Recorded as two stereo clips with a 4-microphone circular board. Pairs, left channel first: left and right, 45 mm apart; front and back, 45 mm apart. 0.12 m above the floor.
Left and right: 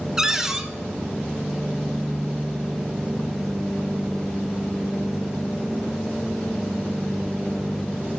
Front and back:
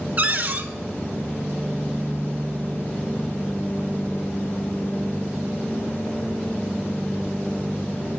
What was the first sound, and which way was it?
A cupboard door, 155° right.